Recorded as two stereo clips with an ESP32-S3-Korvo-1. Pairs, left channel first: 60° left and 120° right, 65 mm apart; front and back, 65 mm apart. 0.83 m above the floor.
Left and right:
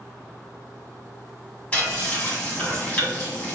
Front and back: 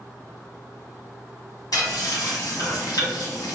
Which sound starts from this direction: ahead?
Frying, at 1.7 s.